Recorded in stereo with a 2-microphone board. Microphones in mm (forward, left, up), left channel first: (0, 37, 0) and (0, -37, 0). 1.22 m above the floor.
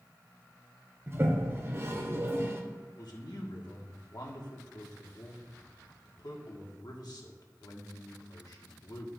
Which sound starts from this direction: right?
A toilet flushing, at 1.1 s.